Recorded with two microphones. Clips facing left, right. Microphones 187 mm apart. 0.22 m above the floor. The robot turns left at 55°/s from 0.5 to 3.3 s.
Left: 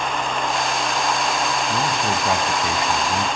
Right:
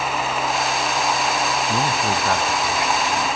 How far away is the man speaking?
About 2 m.